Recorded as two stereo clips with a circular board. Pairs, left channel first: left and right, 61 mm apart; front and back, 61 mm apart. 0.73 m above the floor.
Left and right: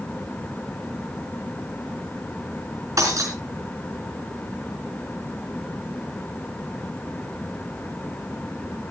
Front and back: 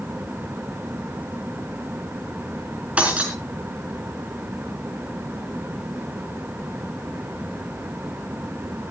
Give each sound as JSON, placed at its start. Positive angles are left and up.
{"t": 3.0, "sound": "breaking glass", "azimuth_deg": -110, "distance_m": 4.5}